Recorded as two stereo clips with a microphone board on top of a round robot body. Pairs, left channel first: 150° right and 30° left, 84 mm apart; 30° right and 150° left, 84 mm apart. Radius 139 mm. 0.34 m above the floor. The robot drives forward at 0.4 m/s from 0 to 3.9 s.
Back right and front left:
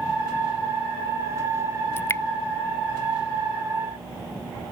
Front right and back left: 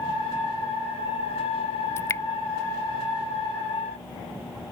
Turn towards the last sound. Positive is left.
turn(degrees=-95)